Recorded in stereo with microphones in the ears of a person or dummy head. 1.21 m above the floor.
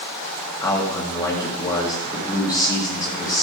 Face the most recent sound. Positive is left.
turn(degrees=15)  # may be behind; listen again after turning